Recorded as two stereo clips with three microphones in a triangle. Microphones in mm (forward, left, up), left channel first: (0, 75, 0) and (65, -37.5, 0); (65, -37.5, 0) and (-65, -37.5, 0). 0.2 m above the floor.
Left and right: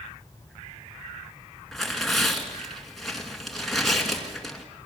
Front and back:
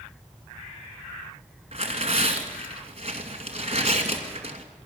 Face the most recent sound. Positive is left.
turn(degrees=-150)